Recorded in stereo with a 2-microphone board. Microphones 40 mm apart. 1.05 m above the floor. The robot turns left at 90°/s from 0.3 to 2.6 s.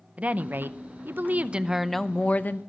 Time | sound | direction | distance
0.2 | a woman speaking | 35° right | 0.6 m